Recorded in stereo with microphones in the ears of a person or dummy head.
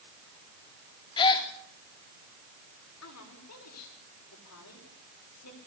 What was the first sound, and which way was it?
A gasp, 20° left (ahead or behind).